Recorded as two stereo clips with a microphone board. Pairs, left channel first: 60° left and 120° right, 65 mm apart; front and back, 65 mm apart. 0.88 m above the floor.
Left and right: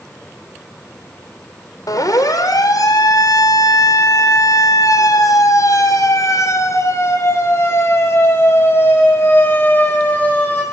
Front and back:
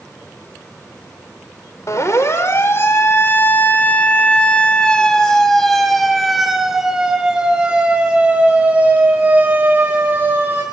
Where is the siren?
40° left, 4 m; by 10.7 s 120° left, 6 m.